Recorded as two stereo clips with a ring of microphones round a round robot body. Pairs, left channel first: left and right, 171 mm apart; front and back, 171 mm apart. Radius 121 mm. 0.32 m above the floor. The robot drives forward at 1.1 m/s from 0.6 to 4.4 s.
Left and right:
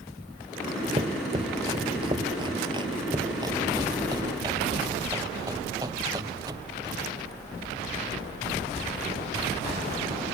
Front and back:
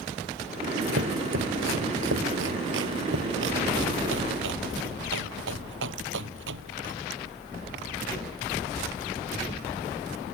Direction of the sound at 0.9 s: 155° right.